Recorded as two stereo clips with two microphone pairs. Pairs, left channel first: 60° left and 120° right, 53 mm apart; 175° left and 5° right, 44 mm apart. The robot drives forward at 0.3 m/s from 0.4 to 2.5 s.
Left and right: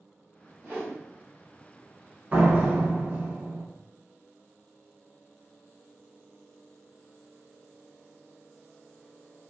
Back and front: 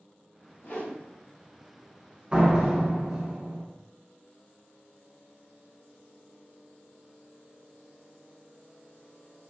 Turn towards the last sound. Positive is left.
turn(degrees=-75)